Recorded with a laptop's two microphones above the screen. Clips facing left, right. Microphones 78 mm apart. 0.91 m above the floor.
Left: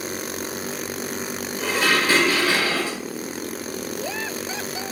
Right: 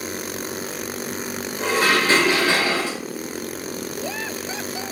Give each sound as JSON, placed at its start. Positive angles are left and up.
{"t": 1.6, "sound": "dishes clattering", "side_deg": -25, "distance_m": 1.6}